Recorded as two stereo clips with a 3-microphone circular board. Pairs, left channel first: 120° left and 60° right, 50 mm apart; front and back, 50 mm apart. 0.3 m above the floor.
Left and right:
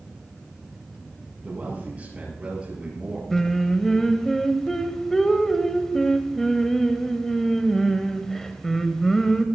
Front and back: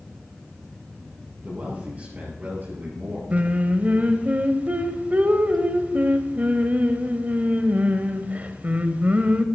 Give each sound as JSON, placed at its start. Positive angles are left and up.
{"t": 1.4, "sound": "a man speaking", "azimuth_deg": -115, "distance_m": 6.0}
{"t": 3.3, "sound": "singing", "azimuth_deg": -165, "distance_m": 1.1}